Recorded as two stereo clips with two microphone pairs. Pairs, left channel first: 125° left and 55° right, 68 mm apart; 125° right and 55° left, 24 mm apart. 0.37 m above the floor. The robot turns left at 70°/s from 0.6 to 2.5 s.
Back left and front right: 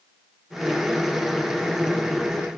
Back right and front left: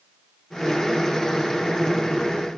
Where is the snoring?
I don't hear snoring.